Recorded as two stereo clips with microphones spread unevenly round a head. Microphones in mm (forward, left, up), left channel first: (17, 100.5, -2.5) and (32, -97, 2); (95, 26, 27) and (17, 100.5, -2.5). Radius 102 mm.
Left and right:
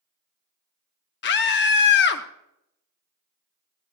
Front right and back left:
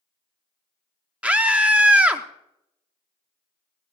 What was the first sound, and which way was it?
A scream, 60° left.